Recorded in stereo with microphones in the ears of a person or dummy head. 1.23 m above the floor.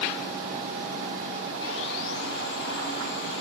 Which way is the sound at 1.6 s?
65° left (ahead or behind).